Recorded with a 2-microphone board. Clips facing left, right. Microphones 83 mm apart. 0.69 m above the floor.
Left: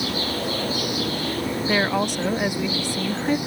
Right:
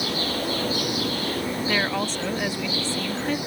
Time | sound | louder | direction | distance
1.7 | a woman speaking | left 5 dB | 15° left (ahead or behind) | ?